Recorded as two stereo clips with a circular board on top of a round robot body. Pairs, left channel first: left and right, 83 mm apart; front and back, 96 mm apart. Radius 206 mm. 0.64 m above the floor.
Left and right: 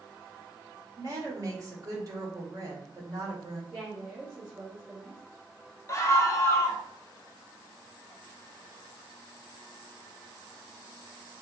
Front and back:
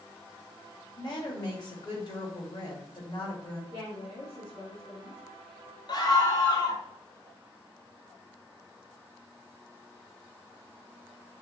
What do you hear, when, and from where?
1.0 s a woman speaking: 45° right, 1.8 m
3.7 s a woman speaking: 15° right, 2.5 m
5.9 s a scream: 40° left, 1.0 m